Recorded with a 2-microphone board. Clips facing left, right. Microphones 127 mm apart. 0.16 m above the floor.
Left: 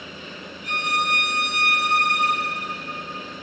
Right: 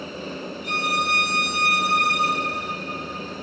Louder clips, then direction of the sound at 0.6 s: Left 1 dB; 50° left (ahead or behind).